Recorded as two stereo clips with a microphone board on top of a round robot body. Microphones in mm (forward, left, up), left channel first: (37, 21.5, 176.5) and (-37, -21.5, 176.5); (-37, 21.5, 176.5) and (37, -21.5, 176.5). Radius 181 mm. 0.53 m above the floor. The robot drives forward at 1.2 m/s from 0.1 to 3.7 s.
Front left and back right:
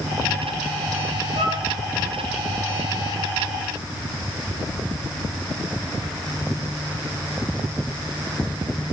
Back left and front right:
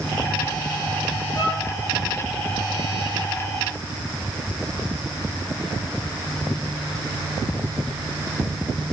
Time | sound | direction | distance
1.4 | a violin | 160° right | 6 m